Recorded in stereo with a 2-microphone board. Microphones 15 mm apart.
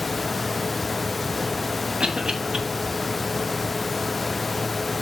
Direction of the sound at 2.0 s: 80° right.